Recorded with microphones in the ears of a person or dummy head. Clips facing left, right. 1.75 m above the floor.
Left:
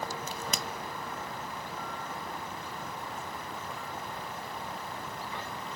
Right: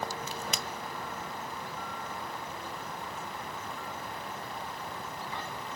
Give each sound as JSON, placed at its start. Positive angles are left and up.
{"t": 0.3, "sound": "a crack", "side_deg": 45, "distance_m": 0.6}